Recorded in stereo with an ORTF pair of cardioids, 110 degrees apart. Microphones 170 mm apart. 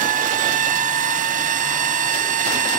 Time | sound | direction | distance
0.0 | a machine running | 50° right | ?